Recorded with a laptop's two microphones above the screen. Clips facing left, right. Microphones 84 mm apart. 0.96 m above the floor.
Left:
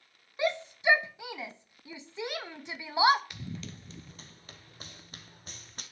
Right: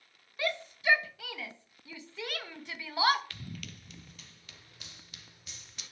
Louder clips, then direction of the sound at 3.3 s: Left 4 dB; 20° left (ahead or behind).